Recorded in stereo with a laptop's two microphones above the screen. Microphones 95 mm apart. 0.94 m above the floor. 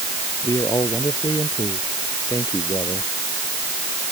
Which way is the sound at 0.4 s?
45° left (ahead or behind).